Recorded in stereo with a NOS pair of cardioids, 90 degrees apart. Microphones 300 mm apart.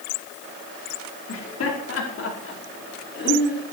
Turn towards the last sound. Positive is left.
turn(degrees=35)